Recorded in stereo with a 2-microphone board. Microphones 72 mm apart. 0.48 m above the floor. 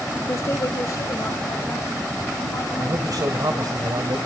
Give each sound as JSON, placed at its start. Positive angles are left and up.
{"t": 0.3, "sound": "a woman speaking", "side_deg": 45, "distance_m": 0.9}
{"t": 2.8, "sound": "a man speaking", "side_deg": -55, "distance_m": 1.8}